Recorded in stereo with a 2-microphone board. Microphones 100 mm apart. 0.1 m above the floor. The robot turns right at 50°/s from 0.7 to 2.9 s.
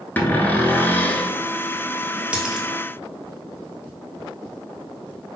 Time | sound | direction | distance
0.2 | a cupboard door | 20° left (ahead or behind) | 0.7 m
2.3 | a dropped coin | 10° right (ahead or behind) | 1.1 m